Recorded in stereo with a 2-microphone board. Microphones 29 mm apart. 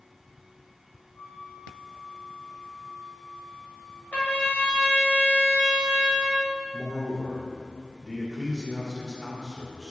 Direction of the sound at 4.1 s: 75° left (ahead or behind).